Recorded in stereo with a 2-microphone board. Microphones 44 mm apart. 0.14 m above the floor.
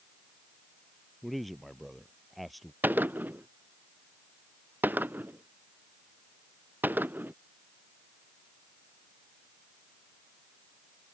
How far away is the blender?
No blender in this recording.